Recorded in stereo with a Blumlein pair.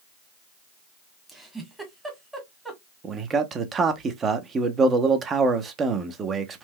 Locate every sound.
1.3 s a giggle: 5° right, 1.4 m
3.0 s a man speaking: 20° right, 0.8 m